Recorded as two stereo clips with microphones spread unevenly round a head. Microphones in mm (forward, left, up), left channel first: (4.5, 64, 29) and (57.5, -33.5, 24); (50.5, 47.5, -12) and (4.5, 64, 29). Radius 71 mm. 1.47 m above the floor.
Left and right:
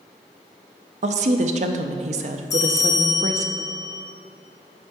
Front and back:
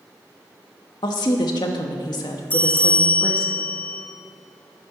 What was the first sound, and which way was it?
A woman speaking, 50° right.